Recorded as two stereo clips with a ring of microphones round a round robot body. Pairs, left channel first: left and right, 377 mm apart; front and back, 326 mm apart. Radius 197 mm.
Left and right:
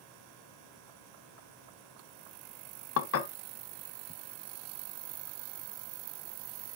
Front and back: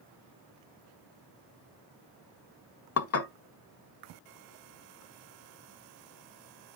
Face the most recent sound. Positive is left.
turn(degrees=40)